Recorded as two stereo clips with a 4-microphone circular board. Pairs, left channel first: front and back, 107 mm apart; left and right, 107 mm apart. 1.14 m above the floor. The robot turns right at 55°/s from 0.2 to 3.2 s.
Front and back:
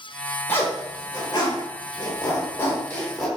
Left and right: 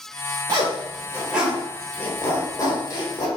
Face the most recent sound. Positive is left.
turn(degrees=90)